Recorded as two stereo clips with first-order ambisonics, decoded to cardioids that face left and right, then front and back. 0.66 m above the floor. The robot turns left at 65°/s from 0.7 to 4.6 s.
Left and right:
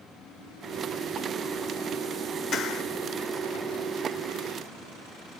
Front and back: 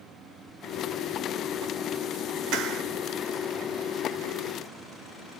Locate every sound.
2.5 s a clap: 150° left, 2.5 m; by 2.8 s 130° left, 2.5 m